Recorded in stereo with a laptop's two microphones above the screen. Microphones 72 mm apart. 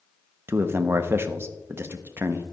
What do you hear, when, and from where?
0.5 s a man speaking: 30° right (ahead or behind), 0.9 m